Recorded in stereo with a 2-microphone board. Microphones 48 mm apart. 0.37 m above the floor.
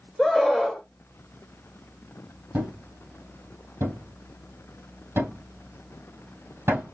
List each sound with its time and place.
0.2 s a scream: centre (ahead or behind), 1.7 m
2.5 s a thud: 60° right (ahead or behind), 3 m